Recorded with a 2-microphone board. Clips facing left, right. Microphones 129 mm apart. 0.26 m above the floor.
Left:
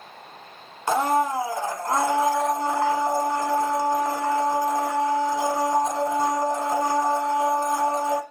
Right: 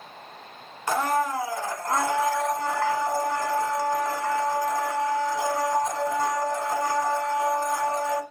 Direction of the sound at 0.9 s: 25° left (ahead or behind).